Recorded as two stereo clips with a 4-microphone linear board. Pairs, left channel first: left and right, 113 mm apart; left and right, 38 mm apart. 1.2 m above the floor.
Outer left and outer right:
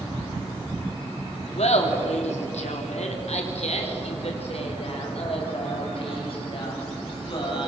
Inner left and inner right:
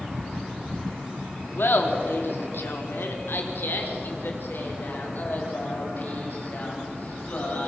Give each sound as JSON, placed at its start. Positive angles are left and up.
{"t": 1.6, "sound": "laughter", "side_deg": 70, "distance_m": 3.5}